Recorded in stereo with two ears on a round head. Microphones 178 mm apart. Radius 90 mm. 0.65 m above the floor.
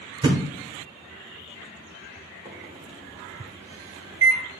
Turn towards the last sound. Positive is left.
turn(degrees=-15)  # may be behind; listen again after turning